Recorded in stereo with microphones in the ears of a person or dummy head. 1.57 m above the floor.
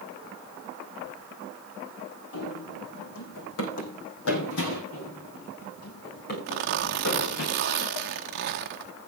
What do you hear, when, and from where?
2.3 s running footsteps: 70° left (ahead or behind), 5.5 m; by 4.8 s 65° left (ahead or behind), 4.5 m
4.9 s running footsteps: 35° left (ahead or behind), 7 m; by 7.5 s 60° left (ahead or behind), 8.5 m
6.5 s a zipper: 50° right (ahead or behind), 1.0 m